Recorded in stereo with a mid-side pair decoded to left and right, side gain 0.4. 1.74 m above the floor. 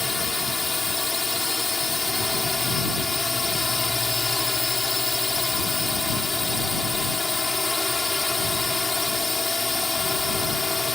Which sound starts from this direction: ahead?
A drone, at 0.0 s.